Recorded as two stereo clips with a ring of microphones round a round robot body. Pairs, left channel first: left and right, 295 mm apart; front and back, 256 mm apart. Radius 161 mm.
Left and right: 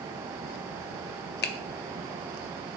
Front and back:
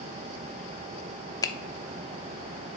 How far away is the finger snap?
About 0.7 m.